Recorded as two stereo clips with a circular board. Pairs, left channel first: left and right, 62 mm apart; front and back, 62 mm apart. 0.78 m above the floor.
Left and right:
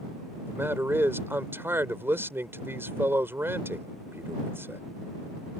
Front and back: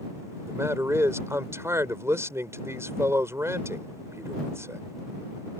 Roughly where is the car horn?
No car horn in this recording.